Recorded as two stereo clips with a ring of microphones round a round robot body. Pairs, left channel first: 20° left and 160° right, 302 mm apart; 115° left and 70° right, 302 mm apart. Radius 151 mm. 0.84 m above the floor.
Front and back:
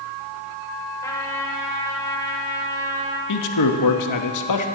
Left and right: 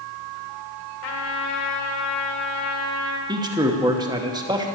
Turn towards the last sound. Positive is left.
turn(degrees=10)